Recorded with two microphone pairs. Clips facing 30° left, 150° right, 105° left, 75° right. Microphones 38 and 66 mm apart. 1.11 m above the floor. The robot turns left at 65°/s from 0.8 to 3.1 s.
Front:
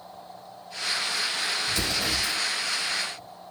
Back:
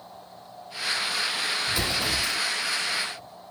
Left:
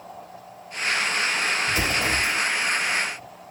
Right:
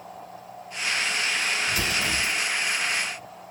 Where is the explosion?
160° left, 1.0 m; by 2.4 s 115° left, 1.0 m.